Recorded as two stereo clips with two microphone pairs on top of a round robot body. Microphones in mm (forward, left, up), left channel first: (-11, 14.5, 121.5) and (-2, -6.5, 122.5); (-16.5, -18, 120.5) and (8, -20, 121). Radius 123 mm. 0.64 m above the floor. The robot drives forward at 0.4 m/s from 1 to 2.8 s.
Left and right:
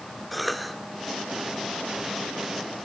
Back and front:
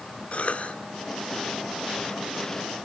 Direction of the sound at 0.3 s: 155° right.